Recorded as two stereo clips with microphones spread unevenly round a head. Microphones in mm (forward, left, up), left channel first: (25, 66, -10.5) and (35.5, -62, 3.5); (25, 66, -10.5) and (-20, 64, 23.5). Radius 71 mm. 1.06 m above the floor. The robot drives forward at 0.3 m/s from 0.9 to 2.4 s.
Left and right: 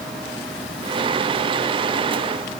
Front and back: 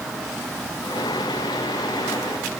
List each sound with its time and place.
Only background noise.